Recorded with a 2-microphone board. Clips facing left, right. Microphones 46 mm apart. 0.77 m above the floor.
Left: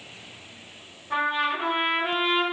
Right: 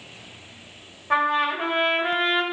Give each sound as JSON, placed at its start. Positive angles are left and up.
{"t": 1.1, "sound": "a trumpet", "side_deg": -65, "distance_m": 1.2}